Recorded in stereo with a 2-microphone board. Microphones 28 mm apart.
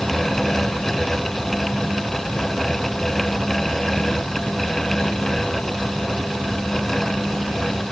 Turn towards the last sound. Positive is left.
No sound to turn to.